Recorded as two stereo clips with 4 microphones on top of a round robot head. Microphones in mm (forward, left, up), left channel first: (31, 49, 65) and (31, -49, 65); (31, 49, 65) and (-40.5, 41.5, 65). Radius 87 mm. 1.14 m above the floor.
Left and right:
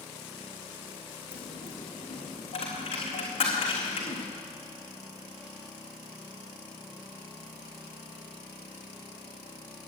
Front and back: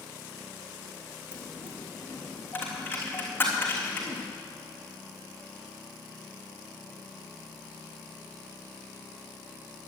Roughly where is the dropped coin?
Ahead left.